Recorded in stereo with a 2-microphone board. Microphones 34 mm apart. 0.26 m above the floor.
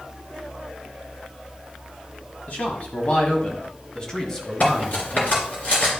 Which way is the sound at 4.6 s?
50° left (ahead or behind).